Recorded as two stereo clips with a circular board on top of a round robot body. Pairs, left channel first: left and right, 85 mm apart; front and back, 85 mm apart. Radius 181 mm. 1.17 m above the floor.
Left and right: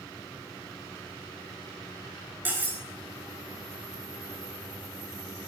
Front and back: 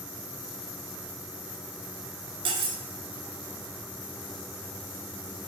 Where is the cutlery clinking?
160° right, 0.9 m.